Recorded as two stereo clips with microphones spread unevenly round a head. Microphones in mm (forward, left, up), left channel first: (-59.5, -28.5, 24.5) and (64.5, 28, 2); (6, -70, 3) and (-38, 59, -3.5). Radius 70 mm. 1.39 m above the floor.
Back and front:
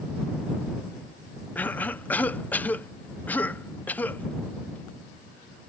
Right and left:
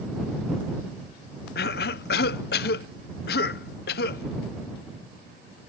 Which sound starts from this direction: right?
A cough, at 1.6 s.